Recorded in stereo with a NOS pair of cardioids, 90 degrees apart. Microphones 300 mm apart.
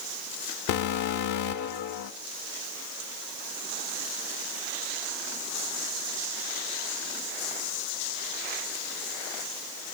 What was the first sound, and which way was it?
An alarm, 70° left.